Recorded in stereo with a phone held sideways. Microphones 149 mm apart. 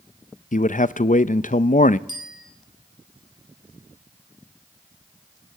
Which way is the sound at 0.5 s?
60° left (ahead or behind).